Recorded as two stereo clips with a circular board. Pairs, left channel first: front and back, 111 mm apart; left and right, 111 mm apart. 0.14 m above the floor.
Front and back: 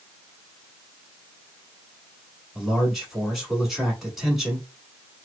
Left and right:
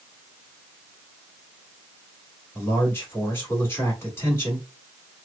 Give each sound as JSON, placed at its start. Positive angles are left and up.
{"t": 2.5, "sound": "a man speaking", "azimuth_deg": 95, "distance_m": 1.3}